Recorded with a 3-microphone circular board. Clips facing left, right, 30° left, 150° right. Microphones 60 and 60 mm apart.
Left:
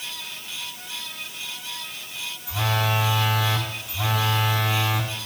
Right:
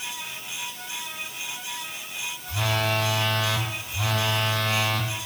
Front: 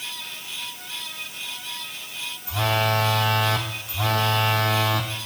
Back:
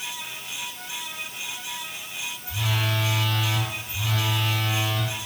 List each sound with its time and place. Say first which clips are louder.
2.5 s a phone buzzing: left 1 dB, front 7 dB; 10° left, 1.0 m